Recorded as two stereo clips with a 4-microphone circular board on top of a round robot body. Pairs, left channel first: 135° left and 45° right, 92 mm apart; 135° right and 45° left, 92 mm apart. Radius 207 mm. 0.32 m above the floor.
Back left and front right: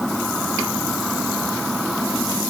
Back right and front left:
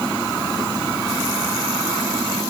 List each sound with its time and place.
Only background noise.